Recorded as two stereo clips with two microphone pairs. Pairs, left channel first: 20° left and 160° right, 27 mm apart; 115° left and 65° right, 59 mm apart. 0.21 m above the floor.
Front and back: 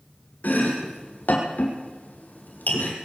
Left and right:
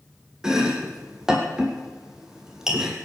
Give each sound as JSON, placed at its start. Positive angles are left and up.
{"t": 0.4, "sound": "chopping", "azimuth_deg": 15, "distance_m": 2.5}